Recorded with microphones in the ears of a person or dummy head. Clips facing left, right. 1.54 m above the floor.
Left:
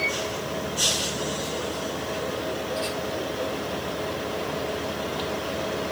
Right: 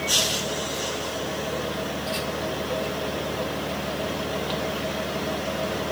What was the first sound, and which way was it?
Only background noise.